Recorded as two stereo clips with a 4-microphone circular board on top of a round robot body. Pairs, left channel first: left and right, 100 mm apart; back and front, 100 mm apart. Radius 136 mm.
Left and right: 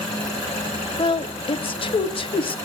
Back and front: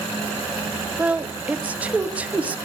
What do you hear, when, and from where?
1.0 s a woman speaking: 75° left, 1.6 m